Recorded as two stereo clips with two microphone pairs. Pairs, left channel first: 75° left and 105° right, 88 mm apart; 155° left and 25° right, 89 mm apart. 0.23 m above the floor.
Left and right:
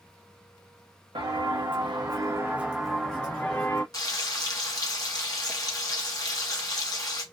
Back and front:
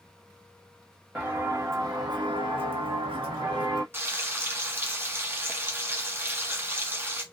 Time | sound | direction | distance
1.1 | footsteps | 95° right | 1.0 m
3.9 | frying | 40° left | 0.8 m